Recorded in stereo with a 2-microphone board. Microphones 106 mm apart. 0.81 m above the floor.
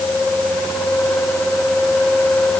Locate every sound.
Only background noise.